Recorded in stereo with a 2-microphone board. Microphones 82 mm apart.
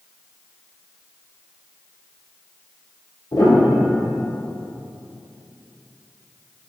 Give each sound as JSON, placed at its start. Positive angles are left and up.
{"t": 3.3, "sound": "a piano", "side_deg": 55, "distance_m": 1.9}